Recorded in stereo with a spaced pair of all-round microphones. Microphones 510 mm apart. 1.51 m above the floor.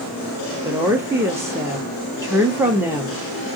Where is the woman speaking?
5° right (ahead or behind), 0.7 m.